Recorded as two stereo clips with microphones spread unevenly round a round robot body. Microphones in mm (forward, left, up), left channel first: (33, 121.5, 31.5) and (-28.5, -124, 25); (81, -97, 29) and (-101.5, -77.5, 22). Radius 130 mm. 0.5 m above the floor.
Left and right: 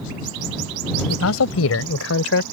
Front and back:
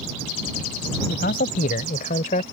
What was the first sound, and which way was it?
A man speaking, 45° left.